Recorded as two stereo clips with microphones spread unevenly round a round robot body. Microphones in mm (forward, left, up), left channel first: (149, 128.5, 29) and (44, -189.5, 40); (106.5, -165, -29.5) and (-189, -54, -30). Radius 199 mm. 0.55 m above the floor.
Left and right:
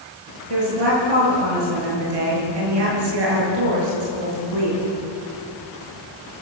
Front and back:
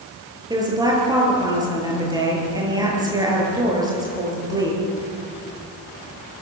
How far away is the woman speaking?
About 9 m.